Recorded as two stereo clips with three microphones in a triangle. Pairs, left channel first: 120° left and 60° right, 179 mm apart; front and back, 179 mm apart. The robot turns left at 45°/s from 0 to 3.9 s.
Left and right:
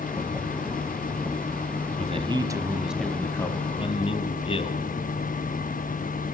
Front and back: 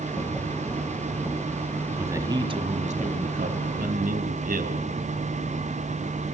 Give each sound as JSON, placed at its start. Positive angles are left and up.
{"t": 2.0, "sound": "a man speaking", "azimuth_deg": -105, "distance_m": 1.7}